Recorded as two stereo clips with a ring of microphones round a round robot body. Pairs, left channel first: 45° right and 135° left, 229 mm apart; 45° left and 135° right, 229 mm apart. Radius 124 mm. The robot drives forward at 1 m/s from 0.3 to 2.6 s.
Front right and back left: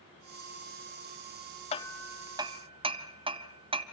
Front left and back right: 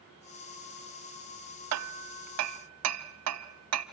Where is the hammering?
110° right, 0.5 m; by 3.8 s 155° right, 1.2 m.